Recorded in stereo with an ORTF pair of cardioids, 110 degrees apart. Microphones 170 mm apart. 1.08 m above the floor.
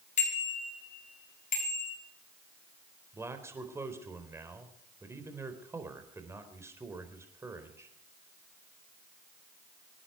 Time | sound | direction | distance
0.2 | a bicycle bell | 45° left | 6 m
3.1 | a man speaking | 15° right | 4 m